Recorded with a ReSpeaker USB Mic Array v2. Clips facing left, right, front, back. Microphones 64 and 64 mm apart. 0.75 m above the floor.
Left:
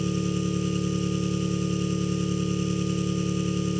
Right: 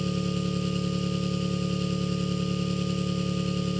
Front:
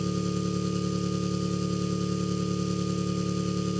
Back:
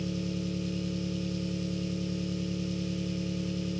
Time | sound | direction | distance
0.0 | an engine running | 5° left | 2.5 m